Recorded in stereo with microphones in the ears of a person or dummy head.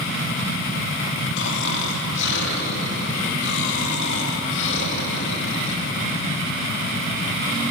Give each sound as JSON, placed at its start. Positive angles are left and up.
{"t": 1.4, "sound": "snoring", "side_deg": 60, "distance_m": 3.0}